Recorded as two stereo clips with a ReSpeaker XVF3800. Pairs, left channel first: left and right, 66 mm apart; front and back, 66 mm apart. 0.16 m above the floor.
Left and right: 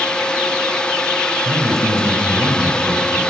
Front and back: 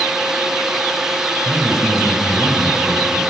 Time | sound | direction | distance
1.4 | a man speaking | 90° right | 1.7 m